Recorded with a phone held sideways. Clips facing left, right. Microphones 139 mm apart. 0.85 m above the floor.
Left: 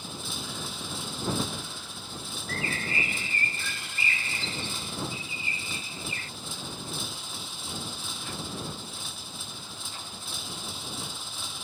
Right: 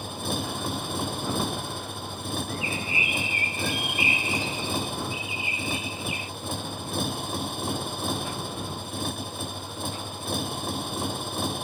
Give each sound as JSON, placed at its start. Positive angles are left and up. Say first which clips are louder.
{"t": 0.0, "sound": "a motorcycle", "louder": "right 8 dB", "side_deg": -60}
{"t": 2.5, "sound": "a bird", "louder": "right 2 dB", "side_deg": -15}